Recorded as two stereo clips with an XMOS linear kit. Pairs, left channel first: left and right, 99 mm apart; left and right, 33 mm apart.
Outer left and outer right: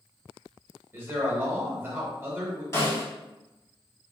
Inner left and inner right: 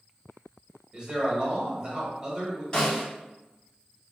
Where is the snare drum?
30° left (ahead or behind), 1.8 m.